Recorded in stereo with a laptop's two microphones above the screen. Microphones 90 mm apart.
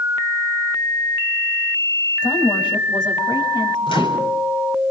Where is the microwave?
75° left (ahead or behind), 3.5 m.